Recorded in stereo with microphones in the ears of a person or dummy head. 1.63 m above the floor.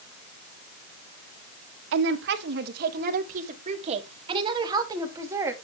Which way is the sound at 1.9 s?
65° right (ahead or behind).